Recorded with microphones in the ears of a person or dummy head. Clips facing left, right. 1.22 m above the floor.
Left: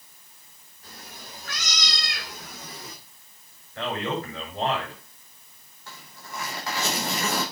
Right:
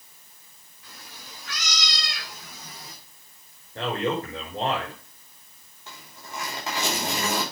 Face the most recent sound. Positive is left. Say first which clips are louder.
# even
turn(degrees=-15)  # may be behind; listen again after turning